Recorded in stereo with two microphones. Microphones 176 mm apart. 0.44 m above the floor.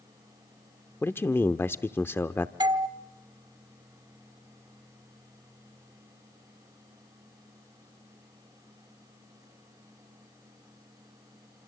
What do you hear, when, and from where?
1.0 s a man speaking: 15° left (ahead or behind), 0.7 m
2.6 s a doorbell: 25° right (ahead or behind), 1.2 m